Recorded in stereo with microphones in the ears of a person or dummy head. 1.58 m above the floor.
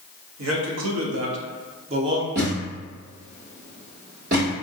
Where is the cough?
No cough in this recording.